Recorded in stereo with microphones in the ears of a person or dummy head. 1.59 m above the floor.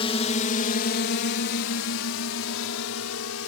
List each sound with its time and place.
0.0 s a drone: 30° left (ahead or behind); by 3.5 s 85° left